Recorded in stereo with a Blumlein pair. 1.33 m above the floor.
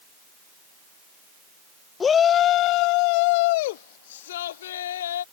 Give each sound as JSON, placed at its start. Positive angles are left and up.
{"t": 2.0, "sound": "a shout", "azimuth_deg": 15}